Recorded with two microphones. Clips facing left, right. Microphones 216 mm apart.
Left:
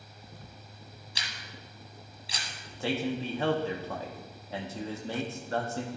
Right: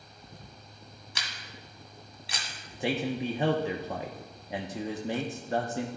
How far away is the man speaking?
About 0.7 m.